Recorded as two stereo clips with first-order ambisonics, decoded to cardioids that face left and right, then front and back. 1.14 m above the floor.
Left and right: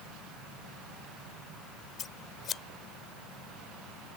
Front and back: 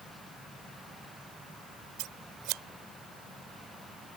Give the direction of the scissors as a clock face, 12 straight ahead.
7 o'clock.